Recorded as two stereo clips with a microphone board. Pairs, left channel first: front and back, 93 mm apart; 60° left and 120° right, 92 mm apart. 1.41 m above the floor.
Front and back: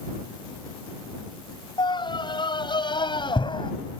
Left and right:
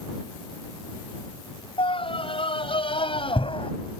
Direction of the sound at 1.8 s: 40° left.